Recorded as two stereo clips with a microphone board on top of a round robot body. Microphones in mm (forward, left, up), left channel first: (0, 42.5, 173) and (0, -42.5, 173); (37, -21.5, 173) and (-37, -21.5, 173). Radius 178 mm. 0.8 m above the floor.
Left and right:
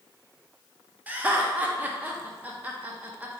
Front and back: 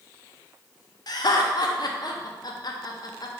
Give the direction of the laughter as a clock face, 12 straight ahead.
1 o'clock.